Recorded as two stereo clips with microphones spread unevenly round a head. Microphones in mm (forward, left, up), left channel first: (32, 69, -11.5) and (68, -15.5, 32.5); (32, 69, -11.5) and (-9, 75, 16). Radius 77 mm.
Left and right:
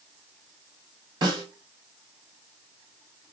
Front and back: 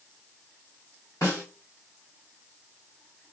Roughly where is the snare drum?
Right.